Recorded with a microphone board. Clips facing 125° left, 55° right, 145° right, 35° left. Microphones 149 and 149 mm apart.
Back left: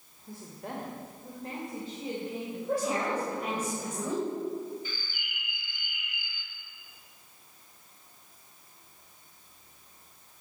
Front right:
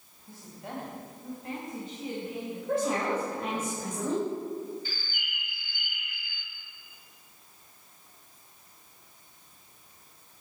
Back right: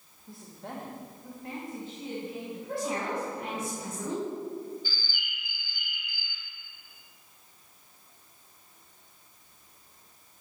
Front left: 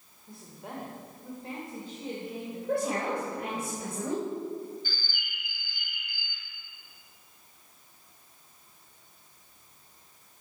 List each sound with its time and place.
0.3 s a woman speaking: 130° left, 1.8 m; by 3.7 s 55° left, 4 m
2.7 s a woman speaking: 50° left, 2.5 m
4.8 s a bird: straight ahead, 1.6 m